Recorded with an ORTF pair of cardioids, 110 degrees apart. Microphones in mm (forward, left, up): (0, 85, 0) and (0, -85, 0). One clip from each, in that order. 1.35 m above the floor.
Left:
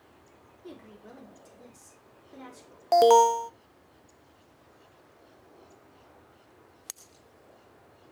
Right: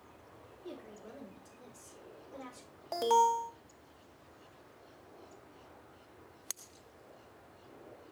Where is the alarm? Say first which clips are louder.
Left 9 dB; 50° left, 0.6 m.